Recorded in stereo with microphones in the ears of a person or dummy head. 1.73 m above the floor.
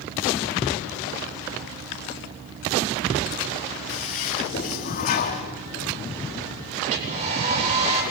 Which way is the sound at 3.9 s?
50° left (ahead or behind).